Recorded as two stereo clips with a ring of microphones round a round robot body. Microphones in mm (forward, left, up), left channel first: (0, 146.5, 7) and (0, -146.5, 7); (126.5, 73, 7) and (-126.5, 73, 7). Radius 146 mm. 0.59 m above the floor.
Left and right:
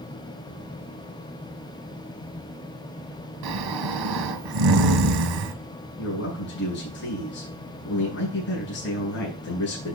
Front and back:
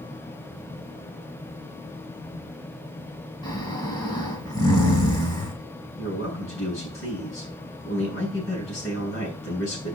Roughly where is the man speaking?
Ahead left.